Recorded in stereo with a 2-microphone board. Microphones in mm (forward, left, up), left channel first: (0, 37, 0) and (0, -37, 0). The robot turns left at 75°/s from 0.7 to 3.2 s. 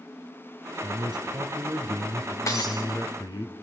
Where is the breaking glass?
40° left (ahead or behind), 3 m; by 2.8 s 70° left (ahead or behind), 3 m.